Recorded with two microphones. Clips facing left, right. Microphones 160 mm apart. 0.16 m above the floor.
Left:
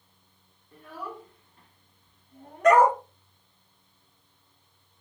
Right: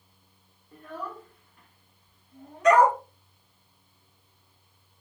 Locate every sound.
0.7 s a child speaking: 5° right (ahead or behind), 1.0 m; by 2.8 s 65° left (ahead or behind), 1.7 m
2.6 s a dog barking: 55° left (ahead or behind), 1.0 m